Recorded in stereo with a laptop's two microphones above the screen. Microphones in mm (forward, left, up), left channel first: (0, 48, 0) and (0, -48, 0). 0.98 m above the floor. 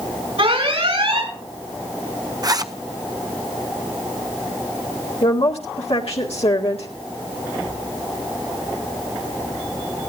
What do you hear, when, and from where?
0.4 s an alarm: 70° right (ahead or behind), 6 m
2.4 s a zipper: 40° right (ahead or behind), 0.6 m
5.2 s a woman speaking: 75° left (ahead or behind), 2 m